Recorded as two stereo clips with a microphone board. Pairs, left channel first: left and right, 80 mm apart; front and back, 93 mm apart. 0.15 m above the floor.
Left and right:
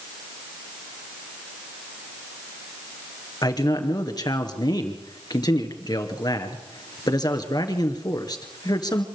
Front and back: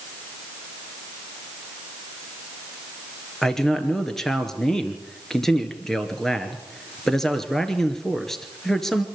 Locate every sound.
3.4 s a man speaking: 85° left, 2.5 m